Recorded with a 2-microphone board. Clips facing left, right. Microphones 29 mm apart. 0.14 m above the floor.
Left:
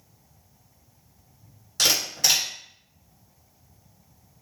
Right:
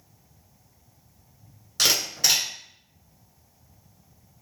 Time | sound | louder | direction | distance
1.8 | a camera shutter | even | 5° right (ahead or behind) | 1.7 m